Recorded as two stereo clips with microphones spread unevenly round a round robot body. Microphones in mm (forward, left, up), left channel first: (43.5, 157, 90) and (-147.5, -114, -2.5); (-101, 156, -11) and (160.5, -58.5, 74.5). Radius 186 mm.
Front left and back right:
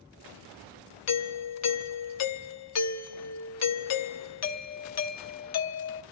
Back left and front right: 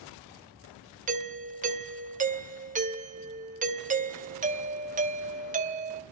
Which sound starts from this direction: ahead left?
A doorbell, at 1.1 s.